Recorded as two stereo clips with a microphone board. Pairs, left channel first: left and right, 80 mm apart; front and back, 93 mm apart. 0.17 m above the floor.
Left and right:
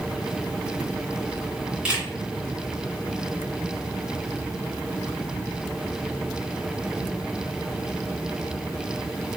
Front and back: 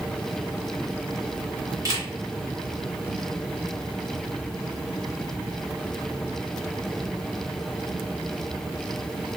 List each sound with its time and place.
1.9 s a camera shutter: 160° right, 1.8 m